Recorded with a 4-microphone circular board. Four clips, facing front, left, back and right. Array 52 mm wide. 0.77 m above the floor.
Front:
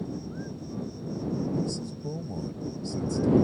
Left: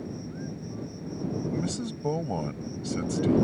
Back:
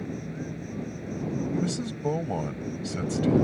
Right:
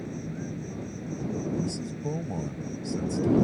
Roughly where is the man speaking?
Behind left.